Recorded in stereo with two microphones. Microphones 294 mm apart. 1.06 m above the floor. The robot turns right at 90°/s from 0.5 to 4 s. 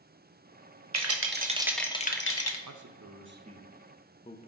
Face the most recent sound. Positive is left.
turn(degrees=25)